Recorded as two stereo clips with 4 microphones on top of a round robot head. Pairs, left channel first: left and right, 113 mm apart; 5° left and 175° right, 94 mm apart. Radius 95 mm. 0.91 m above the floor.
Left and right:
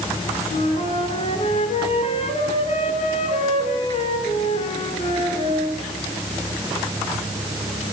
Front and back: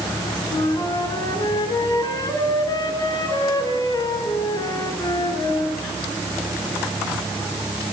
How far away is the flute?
About 4 m.